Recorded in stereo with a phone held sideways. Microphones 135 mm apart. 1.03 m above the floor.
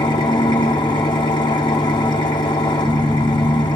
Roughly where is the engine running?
Left.